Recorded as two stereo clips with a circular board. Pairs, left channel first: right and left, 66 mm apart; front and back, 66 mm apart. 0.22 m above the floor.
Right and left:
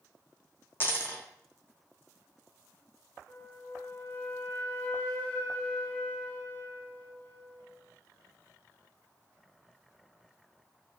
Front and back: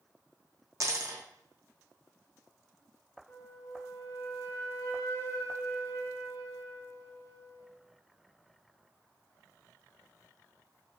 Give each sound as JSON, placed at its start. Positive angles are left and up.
{"t": 0.8, "sound": "a dropped coin", "azimuth_deg": -145, "distance_m": 0.6}
{"t": 3.3, "sound": "a flute", "azimuth_deg": -30, "distance_m": 0.6}